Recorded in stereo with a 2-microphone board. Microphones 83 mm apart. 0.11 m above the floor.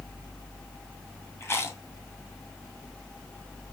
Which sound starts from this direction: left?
Chewing, at 1.4 s.